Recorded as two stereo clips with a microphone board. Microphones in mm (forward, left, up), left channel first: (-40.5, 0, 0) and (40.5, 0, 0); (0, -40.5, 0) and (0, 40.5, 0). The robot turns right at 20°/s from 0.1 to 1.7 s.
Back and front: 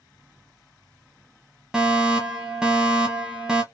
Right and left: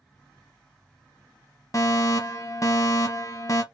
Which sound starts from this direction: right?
A fire alarm, at 1.7 s.